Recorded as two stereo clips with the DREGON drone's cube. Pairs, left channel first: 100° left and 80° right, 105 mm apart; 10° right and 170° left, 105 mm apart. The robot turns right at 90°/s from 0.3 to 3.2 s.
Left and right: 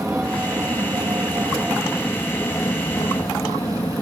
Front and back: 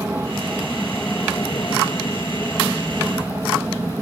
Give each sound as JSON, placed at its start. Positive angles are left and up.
{"t": 0.0, "sound": "an aircraft", "azimuth_deg": -145}